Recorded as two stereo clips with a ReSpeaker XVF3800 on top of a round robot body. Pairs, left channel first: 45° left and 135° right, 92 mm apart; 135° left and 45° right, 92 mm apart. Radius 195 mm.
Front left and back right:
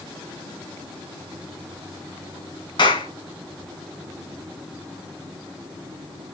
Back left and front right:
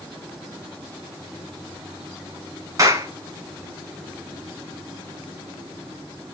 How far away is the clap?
About 5 m.